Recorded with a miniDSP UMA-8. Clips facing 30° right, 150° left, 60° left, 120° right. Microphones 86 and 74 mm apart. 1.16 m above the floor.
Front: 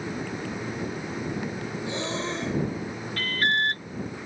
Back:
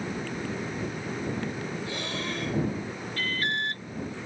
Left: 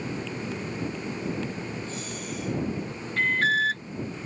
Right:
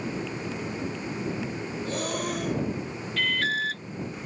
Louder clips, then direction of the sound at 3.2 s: Front 5 dB, left 4 dB; 5° left.